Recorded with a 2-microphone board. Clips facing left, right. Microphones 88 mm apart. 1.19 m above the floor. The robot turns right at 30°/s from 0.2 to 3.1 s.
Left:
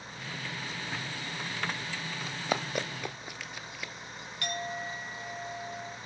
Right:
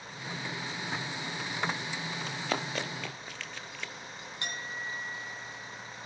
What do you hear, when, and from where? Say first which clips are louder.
2.2 s running footsteps: left 2 dB; 5° left (ahead or behind), 1.6 m
4.4 s a clink: left 4 dB; 25° right (ahead or behind), 3.5 m